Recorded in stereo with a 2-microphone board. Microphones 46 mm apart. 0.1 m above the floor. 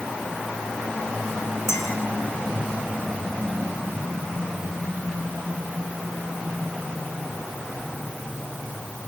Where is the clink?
75° left (ahead or behind), 4.5 m.